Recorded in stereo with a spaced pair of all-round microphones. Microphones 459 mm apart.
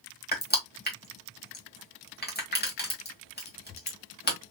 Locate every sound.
0.3 s crushing: 20° left (ahead or behind), 1.5 m